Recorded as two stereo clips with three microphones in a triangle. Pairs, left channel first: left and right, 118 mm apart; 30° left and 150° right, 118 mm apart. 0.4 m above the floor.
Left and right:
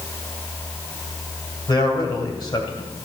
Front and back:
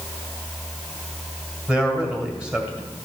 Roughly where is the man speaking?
Behind left.